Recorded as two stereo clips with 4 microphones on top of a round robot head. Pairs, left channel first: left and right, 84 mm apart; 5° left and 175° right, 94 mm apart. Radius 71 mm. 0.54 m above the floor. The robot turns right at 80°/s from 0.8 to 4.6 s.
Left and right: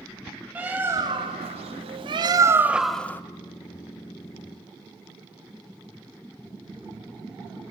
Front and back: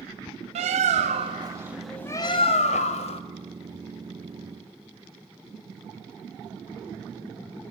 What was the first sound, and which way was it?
A bird, 165° right.